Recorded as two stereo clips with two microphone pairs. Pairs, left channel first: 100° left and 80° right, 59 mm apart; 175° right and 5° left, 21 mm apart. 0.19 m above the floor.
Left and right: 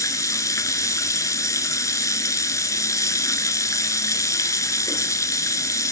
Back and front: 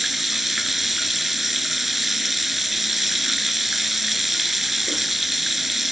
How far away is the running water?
About 1.1 m.